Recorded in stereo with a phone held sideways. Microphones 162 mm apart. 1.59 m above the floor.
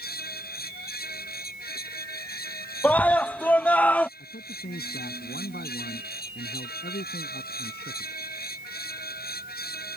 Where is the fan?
75° left (ahead or behind).